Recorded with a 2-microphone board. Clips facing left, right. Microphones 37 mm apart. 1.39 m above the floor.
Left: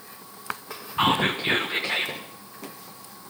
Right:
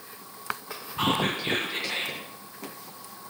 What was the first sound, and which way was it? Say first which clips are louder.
Whispering: left 4 dB; 25° left (ahead or behind).